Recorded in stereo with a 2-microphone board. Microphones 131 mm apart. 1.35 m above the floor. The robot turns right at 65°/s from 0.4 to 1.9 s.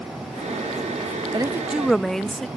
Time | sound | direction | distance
1.3 | a woman speaking | 30° right | ?